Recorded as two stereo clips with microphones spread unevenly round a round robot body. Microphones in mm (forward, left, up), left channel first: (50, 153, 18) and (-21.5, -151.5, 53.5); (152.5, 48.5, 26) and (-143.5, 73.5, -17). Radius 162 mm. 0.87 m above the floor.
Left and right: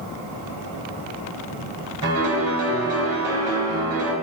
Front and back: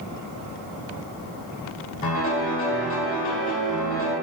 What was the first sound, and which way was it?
A piano, 60° right.